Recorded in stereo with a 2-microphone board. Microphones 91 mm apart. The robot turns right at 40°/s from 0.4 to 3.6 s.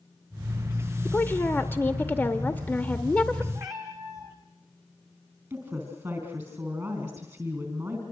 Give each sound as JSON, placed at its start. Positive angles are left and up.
{"t": 1.1, "sound": "a woman speaking", "side_deg": 20, "distance_m": 0.8}
{"t": 3.5, "sound": "a cat meowing", "side_deg": -45, "distance_m": 3.5}
{"t": 5.5, "sound": "a woman speaking", "side_deg": -35, "distance_m": 4.0}